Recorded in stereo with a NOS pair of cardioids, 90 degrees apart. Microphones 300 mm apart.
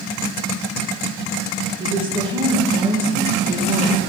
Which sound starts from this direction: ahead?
A woman speaking, at 1.8 s.